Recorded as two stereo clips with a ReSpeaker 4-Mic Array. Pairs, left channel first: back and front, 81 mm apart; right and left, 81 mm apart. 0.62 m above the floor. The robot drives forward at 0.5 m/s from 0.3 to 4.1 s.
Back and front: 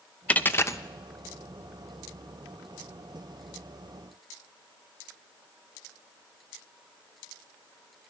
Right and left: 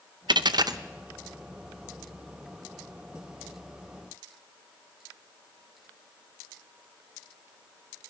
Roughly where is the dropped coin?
Left.